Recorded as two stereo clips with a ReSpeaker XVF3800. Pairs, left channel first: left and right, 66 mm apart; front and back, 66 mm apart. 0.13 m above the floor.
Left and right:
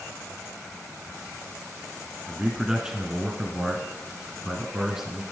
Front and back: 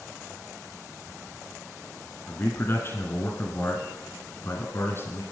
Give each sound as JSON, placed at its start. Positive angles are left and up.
{"t": 2.3, "sound": "a man speaking", "azimuth_deg": -10, "distance_m": 1.4}